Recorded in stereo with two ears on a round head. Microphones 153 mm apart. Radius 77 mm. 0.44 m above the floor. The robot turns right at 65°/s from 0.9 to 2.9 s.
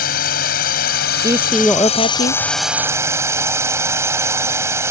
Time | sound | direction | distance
0.0 | a drone | 70° left | ?
1.2 | a man speaking | 25° right | ?